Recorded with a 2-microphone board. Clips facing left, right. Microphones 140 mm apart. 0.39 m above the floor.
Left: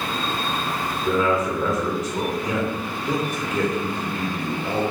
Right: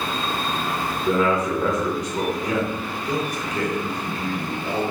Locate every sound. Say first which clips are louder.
1.1 s a man speaking: right 1 dB; 5° left (ahead or behind), 1.0 m
3.0 s a man speaking: left 1 dB; 25° left (ahead or behind), 1.0 m